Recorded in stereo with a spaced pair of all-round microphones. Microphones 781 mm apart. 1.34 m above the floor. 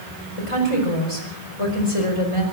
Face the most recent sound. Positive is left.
turn(degrees=40)  # may be behind; listen again after turning